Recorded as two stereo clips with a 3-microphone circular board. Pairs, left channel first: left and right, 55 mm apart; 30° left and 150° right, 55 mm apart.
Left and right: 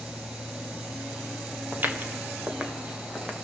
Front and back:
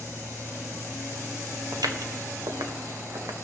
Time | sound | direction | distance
1.7 | footsteps | 145° right | 1.6 m